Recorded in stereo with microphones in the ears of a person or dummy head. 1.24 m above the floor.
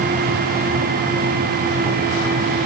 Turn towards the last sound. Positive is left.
No sound to turn to.